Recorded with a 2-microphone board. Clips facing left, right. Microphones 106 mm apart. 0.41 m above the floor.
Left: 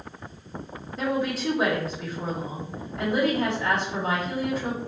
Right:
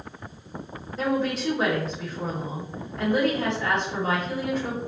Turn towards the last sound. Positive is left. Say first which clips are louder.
# right 1 dB
turn(degrees=5)  # may be behind; listen again after turning